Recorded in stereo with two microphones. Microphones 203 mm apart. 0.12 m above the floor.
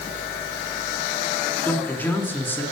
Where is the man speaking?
10° left (ahead or behind), 1.7 m.